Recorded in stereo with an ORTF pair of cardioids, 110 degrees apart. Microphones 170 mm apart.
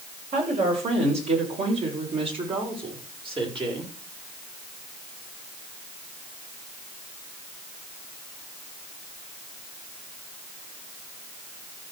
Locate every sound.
0.3 s a woman speaking: 40° right, 8 m; by 3.9 s 30° right, 6 m